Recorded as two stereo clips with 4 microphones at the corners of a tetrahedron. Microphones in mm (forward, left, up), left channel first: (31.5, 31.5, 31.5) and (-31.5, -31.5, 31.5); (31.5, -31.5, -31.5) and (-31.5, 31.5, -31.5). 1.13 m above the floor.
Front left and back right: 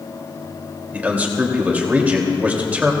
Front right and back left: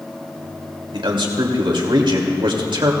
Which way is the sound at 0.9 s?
150° left.